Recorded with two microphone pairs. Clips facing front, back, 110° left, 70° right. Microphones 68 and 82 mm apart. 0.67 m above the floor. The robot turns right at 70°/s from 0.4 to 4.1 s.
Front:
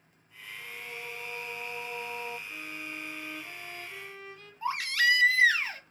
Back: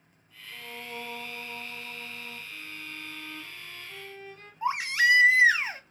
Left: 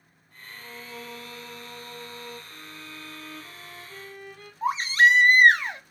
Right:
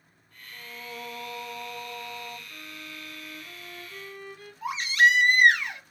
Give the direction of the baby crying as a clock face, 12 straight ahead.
8 o'clock.